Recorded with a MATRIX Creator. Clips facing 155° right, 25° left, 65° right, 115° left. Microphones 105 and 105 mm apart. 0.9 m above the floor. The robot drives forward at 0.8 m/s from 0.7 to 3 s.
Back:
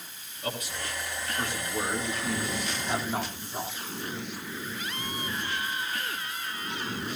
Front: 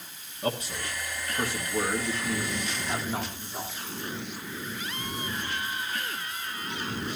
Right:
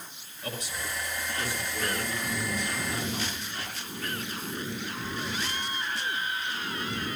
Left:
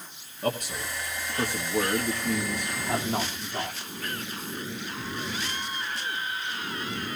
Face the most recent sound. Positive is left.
turn(degrees=130)